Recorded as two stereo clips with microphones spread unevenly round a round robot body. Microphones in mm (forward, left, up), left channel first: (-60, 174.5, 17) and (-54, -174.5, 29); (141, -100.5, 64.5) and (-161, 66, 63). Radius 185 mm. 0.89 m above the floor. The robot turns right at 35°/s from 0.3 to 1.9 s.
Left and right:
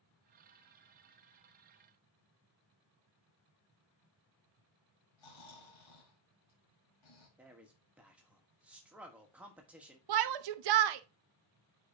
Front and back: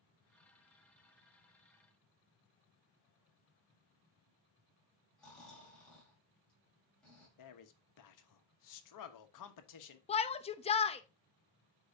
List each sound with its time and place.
5.2 s snoring: 60° left, 4.5 m
7.4 s a man speaking: straight ahead, 1.2 m
10.1 s a shout: 100° right, 0.8 m